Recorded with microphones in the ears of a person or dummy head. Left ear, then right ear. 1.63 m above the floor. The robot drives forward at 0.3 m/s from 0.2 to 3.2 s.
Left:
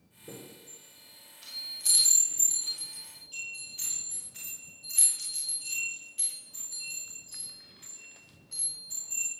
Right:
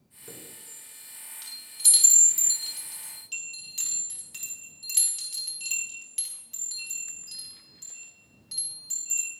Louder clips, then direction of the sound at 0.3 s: Right 1 dB; 45° right (ahead or behind).